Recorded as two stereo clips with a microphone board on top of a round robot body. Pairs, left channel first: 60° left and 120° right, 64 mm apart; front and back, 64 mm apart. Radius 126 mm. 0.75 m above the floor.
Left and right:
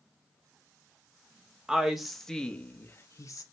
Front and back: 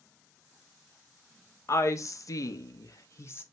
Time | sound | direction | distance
1.7 | a woman speaking | 40° right | 1.3 m